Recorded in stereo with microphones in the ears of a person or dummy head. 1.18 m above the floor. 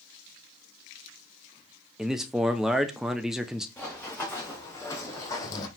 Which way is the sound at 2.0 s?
5° right (ahead or behind).